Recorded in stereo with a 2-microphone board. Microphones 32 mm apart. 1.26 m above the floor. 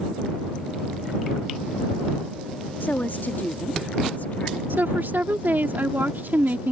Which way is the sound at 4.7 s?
85° right.